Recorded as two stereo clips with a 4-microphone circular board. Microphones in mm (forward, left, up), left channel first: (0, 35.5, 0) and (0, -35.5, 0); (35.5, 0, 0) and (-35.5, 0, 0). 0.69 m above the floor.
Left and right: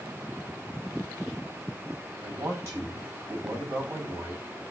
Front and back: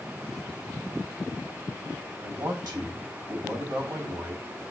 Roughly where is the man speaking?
Behind right.